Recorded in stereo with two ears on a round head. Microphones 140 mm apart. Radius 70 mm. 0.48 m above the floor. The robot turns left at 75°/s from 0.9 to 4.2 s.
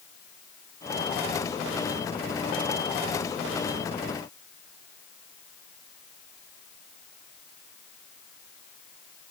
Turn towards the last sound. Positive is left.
No sound to turn to.